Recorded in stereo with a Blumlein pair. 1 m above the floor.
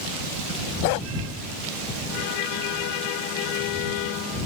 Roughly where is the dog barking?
Ahead left.